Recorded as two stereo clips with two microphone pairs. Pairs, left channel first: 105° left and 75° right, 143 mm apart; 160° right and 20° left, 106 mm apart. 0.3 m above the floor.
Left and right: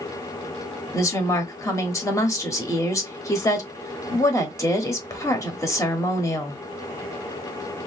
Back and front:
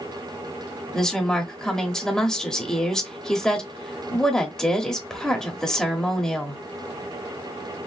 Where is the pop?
I don't hear a pop.